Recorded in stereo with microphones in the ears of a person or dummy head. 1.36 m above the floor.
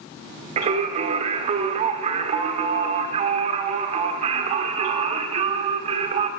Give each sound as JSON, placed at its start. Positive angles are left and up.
{"t": 0.6, "sound": "singing", "side_deg": -30, "distance_m": 1.4}